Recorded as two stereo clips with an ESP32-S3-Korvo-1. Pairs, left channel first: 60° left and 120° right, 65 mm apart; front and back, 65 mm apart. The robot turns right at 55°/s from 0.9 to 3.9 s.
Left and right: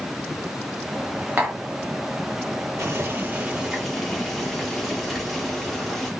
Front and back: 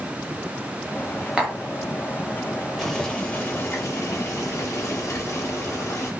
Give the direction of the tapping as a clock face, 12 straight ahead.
4 o'clock.